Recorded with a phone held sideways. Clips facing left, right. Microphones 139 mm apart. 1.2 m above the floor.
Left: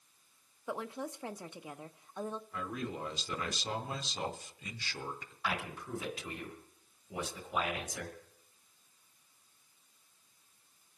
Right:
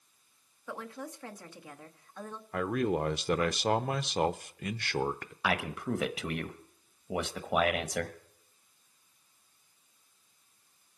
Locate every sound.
0.7 s a woman speaking: 20° left (ahead or behind), 0.7 m
2.5 s a man speaking: 65° right (ahead or behind), 0.6 m
5.4 s a man speaking: 75° right (ahead or behind), 1.0 m